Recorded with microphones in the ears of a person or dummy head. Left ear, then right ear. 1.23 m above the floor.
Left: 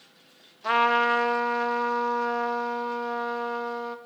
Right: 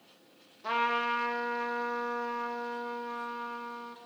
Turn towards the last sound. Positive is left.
turn(degrees=15)  # may be behind; listen again after turning